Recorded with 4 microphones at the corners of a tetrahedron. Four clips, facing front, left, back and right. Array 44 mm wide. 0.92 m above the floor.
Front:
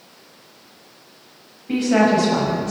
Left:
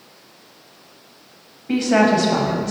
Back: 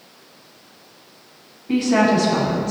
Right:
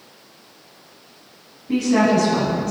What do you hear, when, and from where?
1.7 s a woman speaking: 75° left, 6.5 m